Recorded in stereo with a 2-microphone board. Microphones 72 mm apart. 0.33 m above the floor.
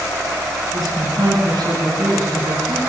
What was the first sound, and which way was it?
A woman speaking, 55° right (ahead or behind).